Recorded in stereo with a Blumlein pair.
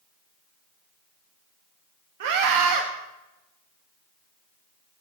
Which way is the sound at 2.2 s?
55° right.